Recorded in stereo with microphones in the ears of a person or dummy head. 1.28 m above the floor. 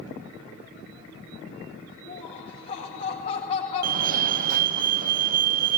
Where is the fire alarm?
45° right (ahead or behind), 1.8 m.